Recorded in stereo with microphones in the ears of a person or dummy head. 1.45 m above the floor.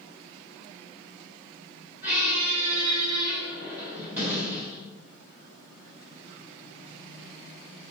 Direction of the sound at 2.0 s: 5° right (ahead or behind).